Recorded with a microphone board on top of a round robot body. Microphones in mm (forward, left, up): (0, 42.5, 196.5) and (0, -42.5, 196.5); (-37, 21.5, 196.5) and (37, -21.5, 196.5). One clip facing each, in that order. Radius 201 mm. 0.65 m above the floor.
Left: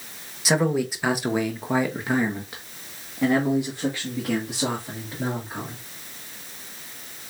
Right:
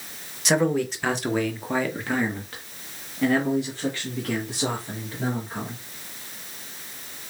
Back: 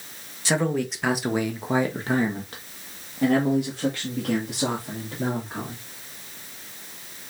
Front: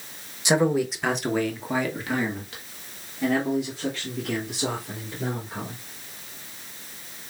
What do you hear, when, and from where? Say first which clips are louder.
0.5 s a man speaking: even, front 3 dB; 10° left, 1.1 m; by 5.8 s 165° left, 2.5 m